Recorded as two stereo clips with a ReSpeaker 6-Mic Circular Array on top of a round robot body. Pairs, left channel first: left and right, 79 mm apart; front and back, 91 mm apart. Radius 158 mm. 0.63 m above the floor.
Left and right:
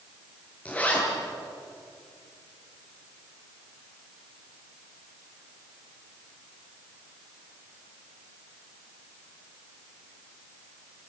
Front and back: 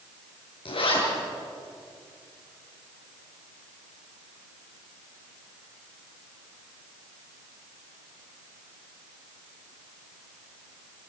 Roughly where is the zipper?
Ahead.